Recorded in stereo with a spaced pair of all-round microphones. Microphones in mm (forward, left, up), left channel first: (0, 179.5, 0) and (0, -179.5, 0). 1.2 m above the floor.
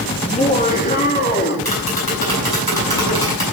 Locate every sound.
0.2 s laughter: 20° left (ahead or behind), 2.5 m; by 1.6 s 30° left (ahead or behind), 3 m
1.6 s tapping: 90° left, 8 m